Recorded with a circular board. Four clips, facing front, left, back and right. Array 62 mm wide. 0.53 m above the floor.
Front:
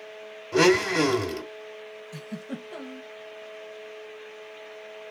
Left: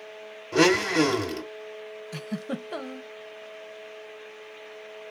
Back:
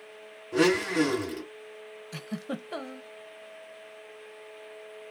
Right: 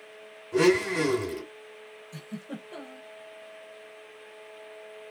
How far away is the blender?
About 1.7 m.